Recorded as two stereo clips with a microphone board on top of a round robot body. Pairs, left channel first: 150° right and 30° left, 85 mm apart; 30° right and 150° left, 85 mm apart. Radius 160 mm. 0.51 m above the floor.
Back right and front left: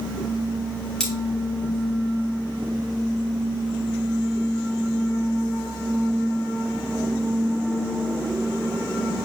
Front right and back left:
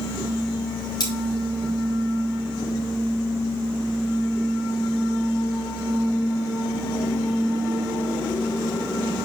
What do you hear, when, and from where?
1.0 s cutlery clinking: 65° right, 3.5 m